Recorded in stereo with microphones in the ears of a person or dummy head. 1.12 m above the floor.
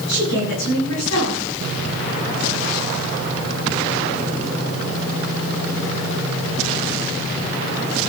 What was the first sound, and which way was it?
A woman speaking, 65° left (ahead or behind).